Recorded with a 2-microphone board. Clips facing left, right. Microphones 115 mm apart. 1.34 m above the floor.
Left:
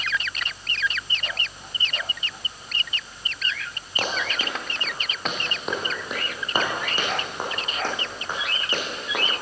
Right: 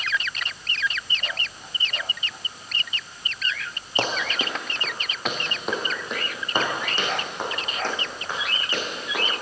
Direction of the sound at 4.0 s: 30° right (ahead or behind).